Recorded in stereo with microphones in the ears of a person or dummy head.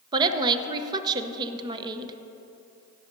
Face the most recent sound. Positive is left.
turn(degrees=-30)  # may be behind; listen again after turning